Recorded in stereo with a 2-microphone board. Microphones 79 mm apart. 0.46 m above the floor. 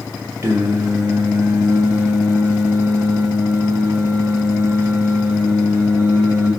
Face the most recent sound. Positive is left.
turn(degrees=-35)  # may be behind; listen again after turning